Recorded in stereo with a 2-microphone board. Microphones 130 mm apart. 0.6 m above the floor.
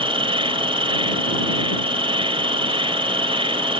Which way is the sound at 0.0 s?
40° right (ahead or behind).